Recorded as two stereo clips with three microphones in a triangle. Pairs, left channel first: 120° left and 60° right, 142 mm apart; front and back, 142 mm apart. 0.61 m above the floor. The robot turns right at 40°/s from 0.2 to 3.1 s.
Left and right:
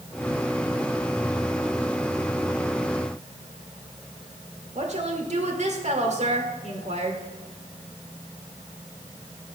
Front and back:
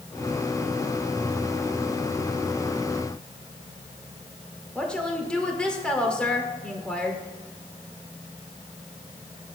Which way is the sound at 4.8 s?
85° right.